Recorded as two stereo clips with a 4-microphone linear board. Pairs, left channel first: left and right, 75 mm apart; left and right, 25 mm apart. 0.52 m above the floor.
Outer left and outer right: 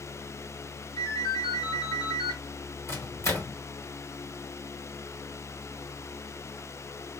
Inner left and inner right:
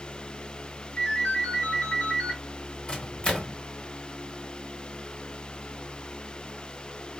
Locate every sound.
1.0 s a ringtone: 80° left, 2.5 m
2.9 s a microwave: 40° left (ahead or behind), 1.4 m